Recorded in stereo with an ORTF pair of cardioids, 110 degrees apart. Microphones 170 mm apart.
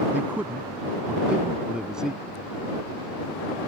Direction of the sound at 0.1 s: 10° right.